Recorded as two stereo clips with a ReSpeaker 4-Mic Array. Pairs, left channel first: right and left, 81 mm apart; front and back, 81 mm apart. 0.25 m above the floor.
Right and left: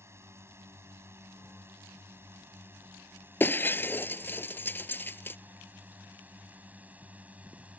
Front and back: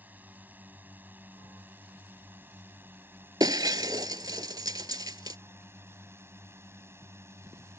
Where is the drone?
125° left; by 7.8 s 150° left.